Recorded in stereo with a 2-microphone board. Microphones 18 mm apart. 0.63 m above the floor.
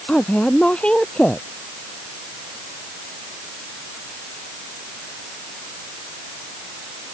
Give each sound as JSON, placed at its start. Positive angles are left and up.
{"t": 0.1, "sound": "a woman speaking", "side_deg": 70}